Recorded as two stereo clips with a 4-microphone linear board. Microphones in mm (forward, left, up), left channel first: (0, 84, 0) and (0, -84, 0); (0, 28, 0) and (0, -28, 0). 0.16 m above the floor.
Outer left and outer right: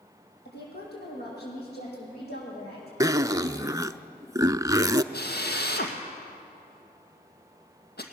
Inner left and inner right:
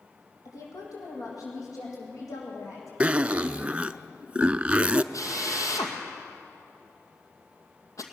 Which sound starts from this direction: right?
A zipper, at 3.0 s.